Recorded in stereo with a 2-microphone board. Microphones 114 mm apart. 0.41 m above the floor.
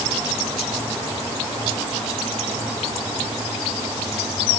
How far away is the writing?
No writing in this recording.